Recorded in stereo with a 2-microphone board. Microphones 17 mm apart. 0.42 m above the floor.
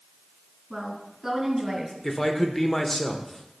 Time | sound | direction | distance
0.7 | a woman speaking | 5° right (ahead or behind) | 3.5 m
2.0 | a man speaking | 20° left (ahead or behind) | 0.9 m